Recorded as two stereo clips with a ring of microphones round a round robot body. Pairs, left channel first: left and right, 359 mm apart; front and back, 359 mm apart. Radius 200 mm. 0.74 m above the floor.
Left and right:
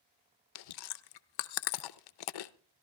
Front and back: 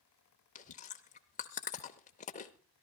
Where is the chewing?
70° left, 0.6 m.